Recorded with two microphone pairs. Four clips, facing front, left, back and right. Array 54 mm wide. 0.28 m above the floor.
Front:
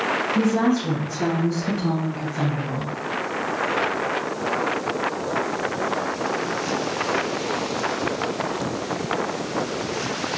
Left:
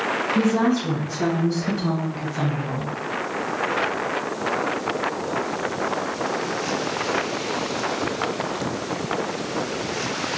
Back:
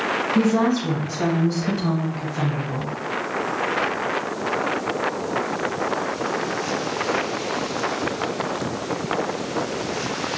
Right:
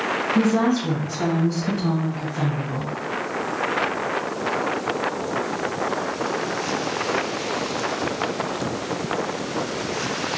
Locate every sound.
0.3 s a woman speaking: 155° right, 2.0 m; by 2.9 s 70° left, 1.4 m